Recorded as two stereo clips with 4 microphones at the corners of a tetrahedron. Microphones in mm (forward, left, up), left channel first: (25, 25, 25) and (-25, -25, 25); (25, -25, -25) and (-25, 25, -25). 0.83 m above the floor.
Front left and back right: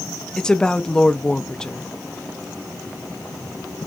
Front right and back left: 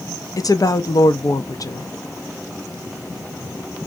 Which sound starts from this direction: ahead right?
A woman speaking, at 0.4 s.